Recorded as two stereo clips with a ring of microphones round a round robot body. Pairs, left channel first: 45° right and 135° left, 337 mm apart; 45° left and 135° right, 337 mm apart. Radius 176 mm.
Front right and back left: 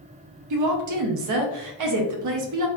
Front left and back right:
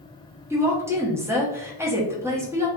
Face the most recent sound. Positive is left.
turn(degrees=145)